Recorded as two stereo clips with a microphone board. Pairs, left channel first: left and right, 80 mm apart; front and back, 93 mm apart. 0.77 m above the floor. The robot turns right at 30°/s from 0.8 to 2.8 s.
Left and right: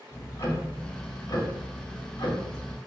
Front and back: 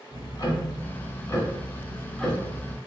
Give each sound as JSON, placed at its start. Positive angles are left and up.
{"t": 0.1, "sound": "ticking", "azimuth_deg": 40, "distance_m": 1.0}